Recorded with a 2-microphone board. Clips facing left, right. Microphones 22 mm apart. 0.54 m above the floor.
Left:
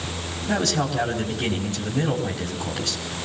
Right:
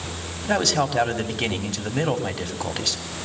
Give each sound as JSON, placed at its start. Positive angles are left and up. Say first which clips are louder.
{"t": 0.4, "sound": "a man speaking", "louder": "right 2 dB", "side_deg": -40, "distance_m": 4.0}